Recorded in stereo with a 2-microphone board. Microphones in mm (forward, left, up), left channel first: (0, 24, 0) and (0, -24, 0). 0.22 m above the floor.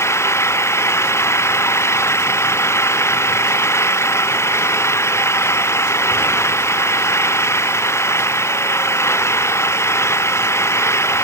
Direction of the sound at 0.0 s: 65° left (ahead or behind).